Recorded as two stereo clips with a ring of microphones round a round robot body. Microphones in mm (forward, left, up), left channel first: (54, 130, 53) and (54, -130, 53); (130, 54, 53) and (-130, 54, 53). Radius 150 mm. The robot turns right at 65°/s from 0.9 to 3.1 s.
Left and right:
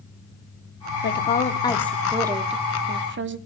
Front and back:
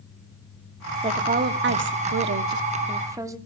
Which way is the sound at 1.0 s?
120° left.